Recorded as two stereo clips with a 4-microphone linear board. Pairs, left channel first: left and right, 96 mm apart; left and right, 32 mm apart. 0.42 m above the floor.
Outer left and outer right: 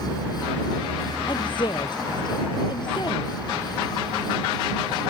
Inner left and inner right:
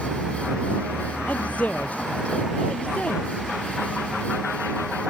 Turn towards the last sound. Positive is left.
turn(degrees=50)  # may be behind; listen again after turning